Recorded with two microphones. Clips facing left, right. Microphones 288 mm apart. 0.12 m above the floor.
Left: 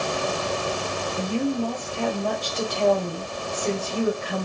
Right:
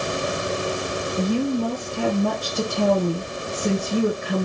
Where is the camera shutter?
No camera shutter in this recording.